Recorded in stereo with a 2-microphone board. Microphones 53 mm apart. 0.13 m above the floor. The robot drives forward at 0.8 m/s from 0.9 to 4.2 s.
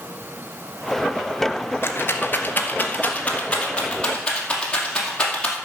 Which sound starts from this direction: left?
A rattle, at 1.8 s.